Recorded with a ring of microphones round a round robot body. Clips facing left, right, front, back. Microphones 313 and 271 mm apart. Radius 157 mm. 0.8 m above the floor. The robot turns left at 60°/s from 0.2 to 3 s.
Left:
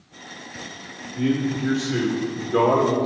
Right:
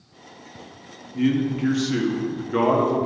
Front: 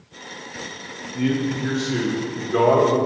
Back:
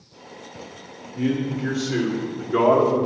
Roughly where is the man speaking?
Ahead right.